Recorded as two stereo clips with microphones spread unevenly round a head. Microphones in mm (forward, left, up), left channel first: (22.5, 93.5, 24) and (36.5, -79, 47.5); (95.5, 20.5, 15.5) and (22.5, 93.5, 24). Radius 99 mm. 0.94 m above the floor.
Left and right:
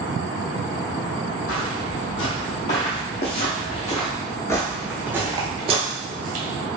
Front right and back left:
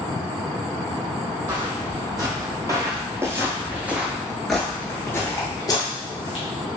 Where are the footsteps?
85° left, 2.0 m; by 6.5 s 90° right, 1.3 m.